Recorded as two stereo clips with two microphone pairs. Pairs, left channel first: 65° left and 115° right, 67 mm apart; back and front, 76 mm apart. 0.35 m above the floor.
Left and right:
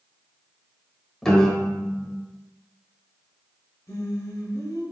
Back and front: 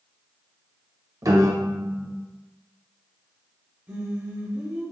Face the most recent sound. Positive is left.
turn(degrees=70)